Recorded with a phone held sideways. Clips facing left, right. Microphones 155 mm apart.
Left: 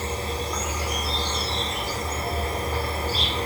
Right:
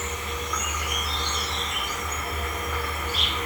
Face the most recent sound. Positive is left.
turn(degrees=35)  # may be behind; listen again after turning